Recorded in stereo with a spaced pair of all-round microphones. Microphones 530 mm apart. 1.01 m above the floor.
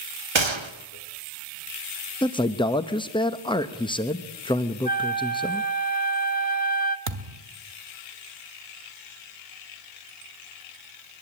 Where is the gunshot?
60° right (ahead or behind), 1.4 m.